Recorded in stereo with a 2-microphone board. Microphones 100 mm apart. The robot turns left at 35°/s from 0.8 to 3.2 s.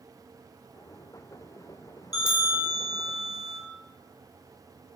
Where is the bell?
40° left, 0.9 m; by 3.6 s 5° left, 0.9 m.